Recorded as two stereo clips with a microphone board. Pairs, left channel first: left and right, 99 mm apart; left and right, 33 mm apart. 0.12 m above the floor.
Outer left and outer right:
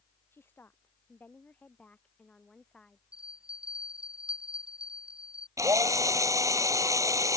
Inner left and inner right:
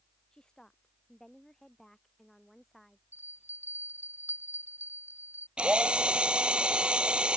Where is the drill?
35° right (ahead or behind).